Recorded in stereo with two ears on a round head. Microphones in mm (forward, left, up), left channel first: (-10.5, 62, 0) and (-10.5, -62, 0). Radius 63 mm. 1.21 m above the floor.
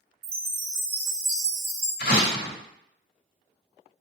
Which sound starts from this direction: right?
A chime, at 0.2 s.